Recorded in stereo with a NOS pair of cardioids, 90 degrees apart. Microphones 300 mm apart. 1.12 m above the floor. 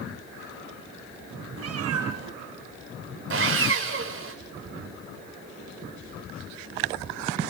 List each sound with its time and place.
1.6 s a cat meowing: 55° right, 3 m
3.3 s sawing: 45° right, 4 m